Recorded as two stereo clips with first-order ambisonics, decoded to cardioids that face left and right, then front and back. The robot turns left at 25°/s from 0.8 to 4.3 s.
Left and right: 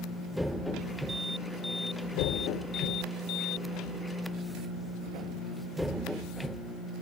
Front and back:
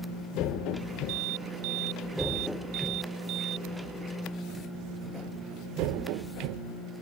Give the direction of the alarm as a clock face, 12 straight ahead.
6 o'clock.